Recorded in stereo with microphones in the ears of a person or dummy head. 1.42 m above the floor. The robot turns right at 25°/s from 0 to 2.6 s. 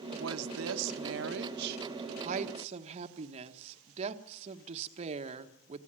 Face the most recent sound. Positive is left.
turn(degrees=-35)